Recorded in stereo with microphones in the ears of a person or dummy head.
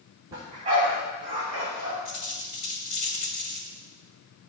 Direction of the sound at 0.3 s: 30° right (ahead or behind).